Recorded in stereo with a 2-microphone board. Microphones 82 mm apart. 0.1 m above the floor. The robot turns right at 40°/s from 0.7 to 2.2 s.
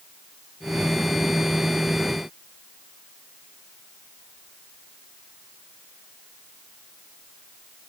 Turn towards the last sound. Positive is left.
No sound to turn to.